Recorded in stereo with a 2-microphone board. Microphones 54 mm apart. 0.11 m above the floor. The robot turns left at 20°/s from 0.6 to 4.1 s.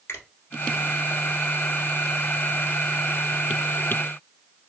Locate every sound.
0.1 s a finger snap: 50° left (ahead or behind), 1.7 m